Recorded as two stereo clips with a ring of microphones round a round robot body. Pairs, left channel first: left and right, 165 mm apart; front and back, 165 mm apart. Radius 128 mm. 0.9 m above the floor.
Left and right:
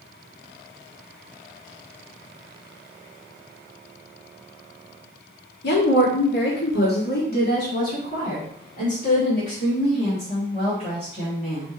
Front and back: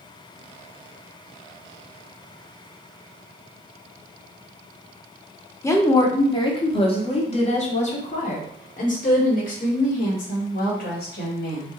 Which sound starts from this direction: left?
A woman speaking, at 5.6 s.